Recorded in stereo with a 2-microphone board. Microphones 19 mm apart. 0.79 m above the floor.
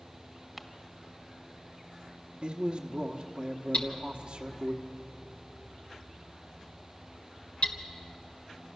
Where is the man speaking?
60° right (ahead or behind), 1.3 m.